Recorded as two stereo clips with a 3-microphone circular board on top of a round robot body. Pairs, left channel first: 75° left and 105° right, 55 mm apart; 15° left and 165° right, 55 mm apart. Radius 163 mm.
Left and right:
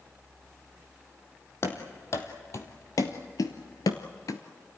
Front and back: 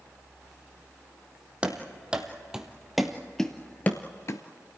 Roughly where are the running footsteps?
Behind left.